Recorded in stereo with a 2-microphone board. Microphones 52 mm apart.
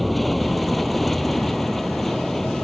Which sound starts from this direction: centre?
An aircraft, at 0.0 s.